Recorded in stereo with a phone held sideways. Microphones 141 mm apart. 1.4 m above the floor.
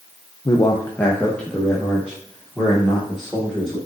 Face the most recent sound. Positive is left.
turn(degrees=5)  # may be behind; listen again after turning